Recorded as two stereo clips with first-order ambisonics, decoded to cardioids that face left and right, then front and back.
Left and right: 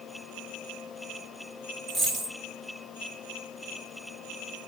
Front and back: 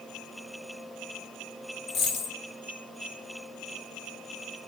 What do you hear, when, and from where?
1.9 s a dropped coin: 15° left, 2.5 m